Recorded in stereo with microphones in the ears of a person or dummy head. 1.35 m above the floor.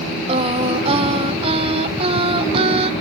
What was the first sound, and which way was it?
Singing, 35° right (ahead or behind).